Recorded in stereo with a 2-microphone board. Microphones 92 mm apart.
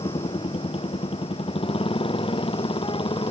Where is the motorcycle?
65° left (ahead or behind); by 3.3 s 70° left (ahead or behind).